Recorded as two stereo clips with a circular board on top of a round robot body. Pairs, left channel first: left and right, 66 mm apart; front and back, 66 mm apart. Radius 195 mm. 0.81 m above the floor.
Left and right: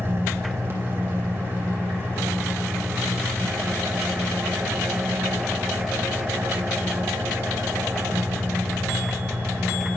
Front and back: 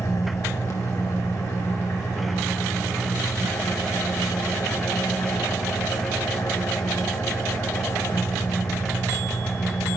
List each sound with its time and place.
0.0 s an engine running: 40° right, 2.5 m